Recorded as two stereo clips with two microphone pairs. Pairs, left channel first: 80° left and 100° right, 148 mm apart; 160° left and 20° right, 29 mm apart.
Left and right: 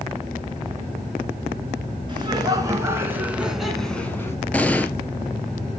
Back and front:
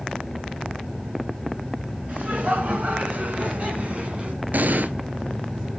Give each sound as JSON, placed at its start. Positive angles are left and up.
{"t": 2.1, "sound": "laughter", "azimuth_deg": -45, "distance_m": 3.5}
{"t": 4.5, "sound": "an explosion", "azimuth_deg": -5, "distance_m": 0.8}